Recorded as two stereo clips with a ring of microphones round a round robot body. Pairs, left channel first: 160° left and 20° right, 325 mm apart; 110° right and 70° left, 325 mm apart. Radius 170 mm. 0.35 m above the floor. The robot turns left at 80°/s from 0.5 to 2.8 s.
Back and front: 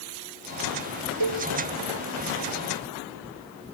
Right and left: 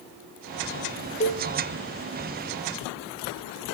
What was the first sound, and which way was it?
A cowbell, 40° right.